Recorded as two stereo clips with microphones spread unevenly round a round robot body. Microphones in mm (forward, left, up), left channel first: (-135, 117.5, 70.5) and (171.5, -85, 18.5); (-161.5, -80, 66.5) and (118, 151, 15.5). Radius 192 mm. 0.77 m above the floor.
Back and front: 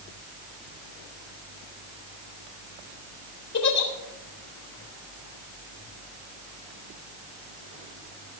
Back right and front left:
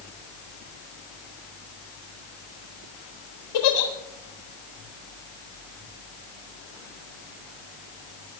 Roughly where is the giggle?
Behind.